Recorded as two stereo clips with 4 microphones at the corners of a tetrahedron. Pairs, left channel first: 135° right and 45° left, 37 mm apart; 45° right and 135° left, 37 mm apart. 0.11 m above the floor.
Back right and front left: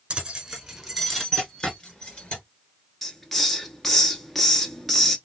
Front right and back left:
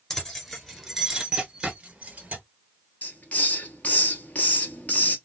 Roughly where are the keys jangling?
Ahead.